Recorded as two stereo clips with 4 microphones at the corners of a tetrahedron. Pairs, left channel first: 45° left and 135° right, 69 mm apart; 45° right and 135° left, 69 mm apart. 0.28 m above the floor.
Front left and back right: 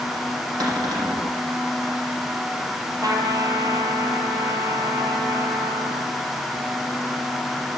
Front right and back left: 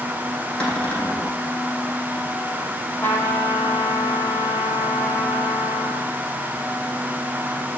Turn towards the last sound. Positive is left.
turn(degrees=-110)